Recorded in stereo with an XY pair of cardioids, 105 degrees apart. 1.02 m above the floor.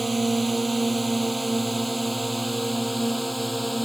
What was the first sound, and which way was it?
A drone, 10° right.